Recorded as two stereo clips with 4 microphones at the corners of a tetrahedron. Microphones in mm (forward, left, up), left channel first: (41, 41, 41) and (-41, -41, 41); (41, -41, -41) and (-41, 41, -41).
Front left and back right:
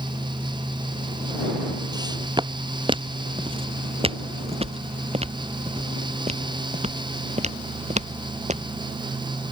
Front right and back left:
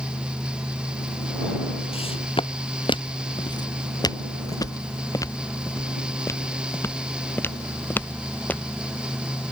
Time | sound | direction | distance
1.9 | footsteps | 80° right | ?